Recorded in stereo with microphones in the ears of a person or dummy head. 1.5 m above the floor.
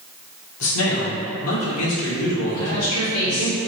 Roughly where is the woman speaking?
Left.